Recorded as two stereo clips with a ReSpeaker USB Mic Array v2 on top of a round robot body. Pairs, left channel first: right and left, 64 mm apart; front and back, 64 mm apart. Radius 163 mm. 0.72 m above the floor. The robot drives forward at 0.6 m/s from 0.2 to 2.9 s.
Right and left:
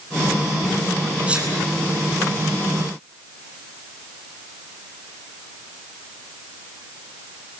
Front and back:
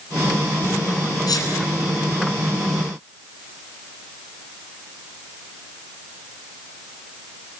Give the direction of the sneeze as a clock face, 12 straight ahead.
11 o'clock.